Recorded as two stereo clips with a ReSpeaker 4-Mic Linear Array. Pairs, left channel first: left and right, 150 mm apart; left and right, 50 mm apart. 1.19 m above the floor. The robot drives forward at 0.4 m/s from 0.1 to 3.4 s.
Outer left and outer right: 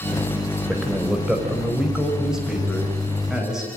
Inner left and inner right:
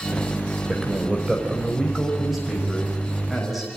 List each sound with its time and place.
0.7 s a man speaking: 5° right (ahead or behind), 4.5 m